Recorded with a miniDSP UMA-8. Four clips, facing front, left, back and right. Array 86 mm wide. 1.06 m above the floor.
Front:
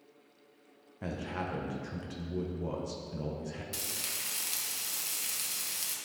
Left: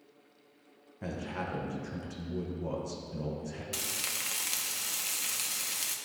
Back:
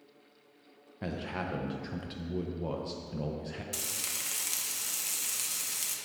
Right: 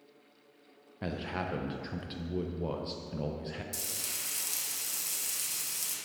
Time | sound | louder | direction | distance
1.0 | a man speaking | right 1 dB, back 1 dB | 120° right | 0.7 m
3.7 | frying | left 4 dB, back 1 dB | 100° left | 0.6 m